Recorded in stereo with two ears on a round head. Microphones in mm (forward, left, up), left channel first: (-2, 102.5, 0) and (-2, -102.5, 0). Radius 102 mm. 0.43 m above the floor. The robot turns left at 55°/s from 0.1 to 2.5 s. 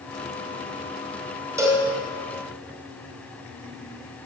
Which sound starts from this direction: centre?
A cowbell, at 1.6 s.